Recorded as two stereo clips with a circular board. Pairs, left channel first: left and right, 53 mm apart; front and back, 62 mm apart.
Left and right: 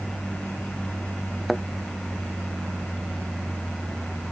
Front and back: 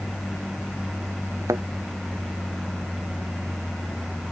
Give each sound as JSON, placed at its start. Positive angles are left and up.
{"t": 0.0, "sound": "an aircraft", "azimuth_deg": -55}
{"t": 1.5, "sound": "a thud", "azimuth_deg": 175}